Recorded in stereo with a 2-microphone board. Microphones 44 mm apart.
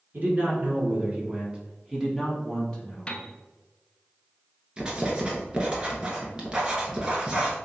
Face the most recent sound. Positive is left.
turn(degrees=-20)  # may be behind; listen again after turning